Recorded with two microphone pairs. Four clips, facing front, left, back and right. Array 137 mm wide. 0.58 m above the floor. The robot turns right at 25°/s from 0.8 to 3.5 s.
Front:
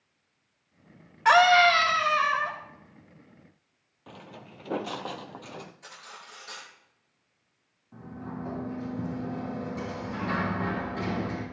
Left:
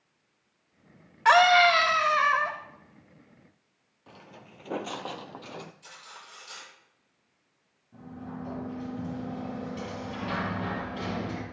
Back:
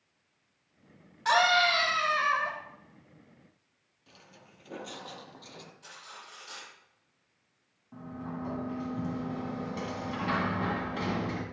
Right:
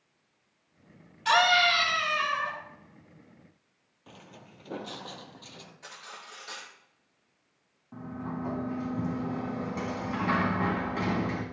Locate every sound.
1.2 s a scream: 60° left, 3 m; by 2.5 s 90° left, 3 m
4.1 s footsteps: straight ahead, 0.9 m; by 5.7 s 60° left, 1.1 m
5.8 s cutlery clinking: 80° right, 5.5 m
7.9 s a sliding door: 100° right, 3.5 m